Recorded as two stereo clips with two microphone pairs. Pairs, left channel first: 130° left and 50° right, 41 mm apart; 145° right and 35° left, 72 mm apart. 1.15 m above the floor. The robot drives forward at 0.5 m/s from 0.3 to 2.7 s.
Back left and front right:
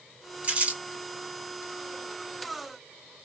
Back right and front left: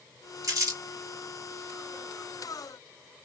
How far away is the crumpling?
About 1.7 m.